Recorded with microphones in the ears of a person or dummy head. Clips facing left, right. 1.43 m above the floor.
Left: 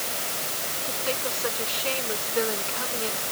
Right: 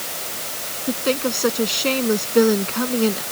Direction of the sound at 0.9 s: 60° right (ahead or behind).